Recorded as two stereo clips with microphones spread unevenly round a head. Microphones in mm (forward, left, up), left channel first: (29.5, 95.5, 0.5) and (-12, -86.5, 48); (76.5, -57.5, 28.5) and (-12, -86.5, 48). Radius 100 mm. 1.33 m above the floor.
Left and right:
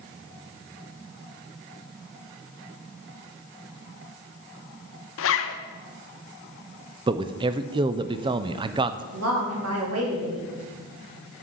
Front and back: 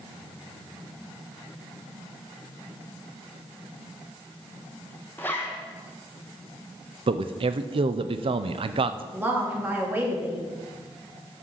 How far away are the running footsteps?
I don't hear running footsteps.